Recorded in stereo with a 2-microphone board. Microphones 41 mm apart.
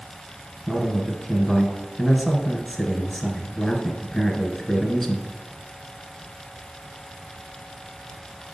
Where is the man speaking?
5° left (ahead or behind), 1.1 m.